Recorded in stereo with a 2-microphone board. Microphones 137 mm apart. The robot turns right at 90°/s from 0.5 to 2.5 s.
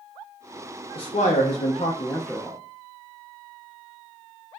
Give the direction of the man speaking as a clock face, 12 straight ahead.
10 o'clock.